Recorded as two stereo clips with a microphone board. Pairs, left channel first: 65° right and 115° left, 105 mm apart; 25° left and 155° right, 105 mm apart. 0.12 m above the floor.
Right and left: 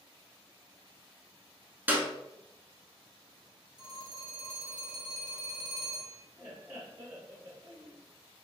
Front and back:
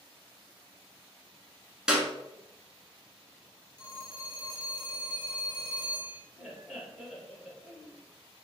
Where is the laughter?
115° left, 1.5 m.